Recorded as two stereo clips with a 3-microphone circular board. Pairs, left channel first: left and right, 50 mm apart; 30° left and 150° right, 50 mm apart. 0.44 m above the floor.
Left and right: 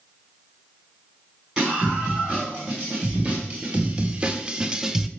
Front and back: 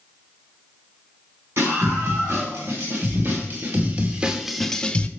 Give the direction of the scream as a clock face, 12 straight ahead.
5 o'clock.